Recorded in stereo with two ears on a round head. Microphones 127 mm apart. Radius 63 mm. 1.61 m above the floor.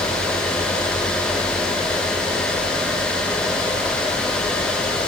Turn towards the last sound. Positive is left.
No sound to turn to.